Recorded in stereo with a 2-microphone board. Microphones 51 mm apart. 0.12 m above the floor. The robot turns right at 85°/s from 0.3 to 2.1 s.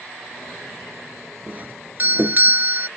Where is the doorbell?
135° right; by 2.9 s 80° right.